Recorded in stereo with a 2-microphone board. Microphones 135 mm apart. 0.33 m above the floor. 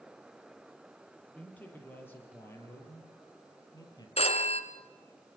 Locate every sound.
1.4 s a man speaking: 10° left (ahead or behind), 8.5 m; by 4.1 s 30° left (ahead or behind), 8 m
4.2 s a phone ringing: 50° left (ahead or behind), 3 m